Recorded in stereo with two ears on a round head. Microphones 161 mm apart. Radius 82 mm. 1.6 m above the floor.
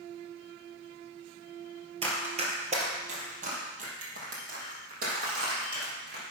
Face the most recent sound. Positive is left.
turn(degrees=-55)  # may be behind; listen again after turning